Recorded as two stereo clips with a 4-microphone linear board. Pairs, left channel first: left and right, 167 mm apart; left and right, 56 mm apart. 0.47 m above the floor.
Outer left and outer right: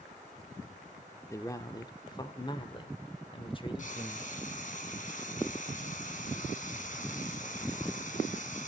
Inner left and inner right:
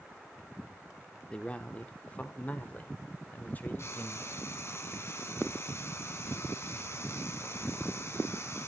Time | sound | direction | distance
1.3 | a man speaking | 15° left (ahead or behind) | 0.9 m
3.8 | frying | 50° left (ahead or behind) | 2.5 m